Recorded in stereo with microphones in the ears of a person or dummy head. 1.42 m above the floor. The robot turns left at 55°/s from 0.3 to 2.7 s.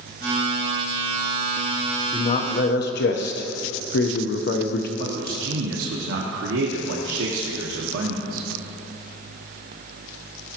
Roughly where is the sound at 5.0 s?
Right.